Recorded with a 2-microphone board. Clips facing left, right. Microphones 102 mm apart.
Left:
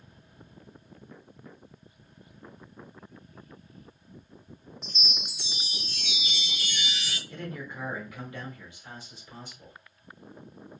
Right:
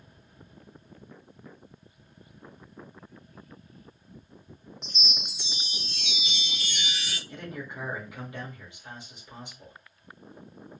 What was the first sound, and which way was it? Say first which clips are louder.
A chime: even; 20° right (ahead or behind).